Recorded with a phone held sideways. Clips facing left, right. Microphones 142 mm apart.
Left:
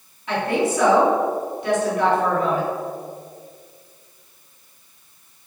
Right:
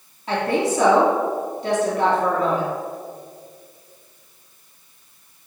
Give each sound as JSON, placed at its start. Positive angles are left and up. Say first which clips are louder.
{"t": 0.3, "sound": "a woman speaking", "louder": "even", "side_deg": -35, "distance_m": 2.5}